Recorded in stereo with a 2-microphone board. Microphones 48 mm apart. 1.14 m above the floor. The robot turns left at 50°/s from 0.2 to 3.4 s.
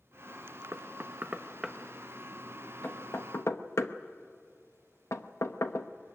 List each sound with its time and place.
0.7 s knocking: 60° right (ahead or behind), 0.9 m; by 5.9 s 75° left (ahead or behind), 0.9 m